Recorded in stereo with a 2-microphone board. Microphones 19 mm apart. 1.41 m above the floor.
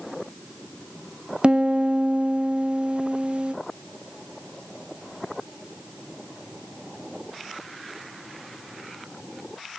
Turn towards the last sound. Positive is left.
turn(degrees=-55)  # may be behind; listen again after turning